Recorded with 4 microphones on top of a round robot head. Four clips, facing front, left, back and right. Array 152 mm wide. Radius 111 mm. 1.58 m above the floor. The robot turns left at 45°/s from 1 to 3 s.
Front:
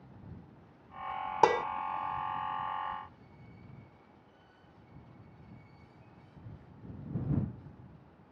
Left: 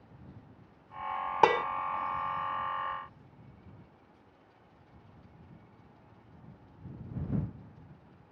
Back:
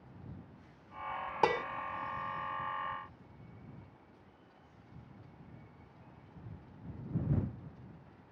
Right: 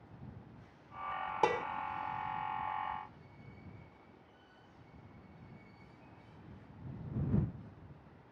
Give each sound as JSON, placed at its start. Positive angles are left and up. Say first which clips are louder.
{"t": 1.4, "sound": "dishes clattering", "louder": "left 8 dB, front 5 dB", "azimuth_deg": 60}